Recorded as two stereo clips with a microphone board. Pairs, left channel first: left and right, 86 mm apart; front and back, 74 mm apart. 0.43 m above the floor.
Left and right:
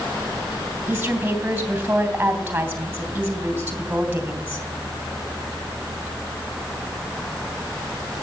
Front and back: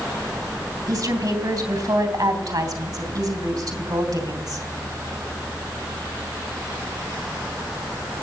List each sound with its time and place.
0.9 s a woman speaking: 160° right, 3 m